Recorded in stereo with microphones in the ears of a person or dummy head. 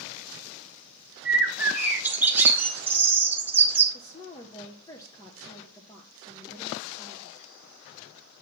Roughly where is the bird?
Centre.